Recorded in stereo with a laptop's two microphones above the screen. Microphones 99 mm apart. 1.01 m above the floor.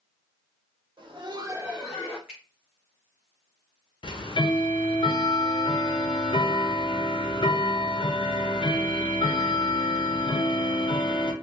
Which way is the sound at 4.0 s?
60° left (ahead or behind).